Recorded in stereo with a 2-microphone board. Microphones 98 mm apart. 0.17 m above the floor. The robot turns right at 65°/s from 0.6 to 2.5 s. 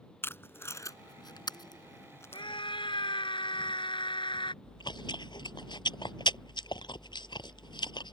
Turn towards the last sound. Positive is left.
turn(degrees=55)  # may be behind; listen again after turning